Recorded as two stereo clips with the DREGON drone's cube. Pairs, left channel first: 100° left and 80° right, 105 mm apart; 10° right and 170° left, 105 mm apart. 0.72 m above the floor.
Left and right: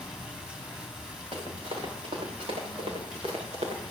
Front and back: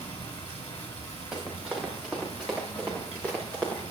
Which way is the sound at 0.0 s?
Straight ahead.